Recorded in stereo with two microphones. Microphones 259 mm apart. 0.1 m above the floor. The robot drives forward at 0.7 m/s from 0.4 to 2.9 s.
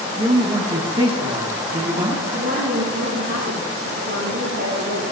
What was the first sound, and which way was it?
A man speaking, 20° right (ahead or behind).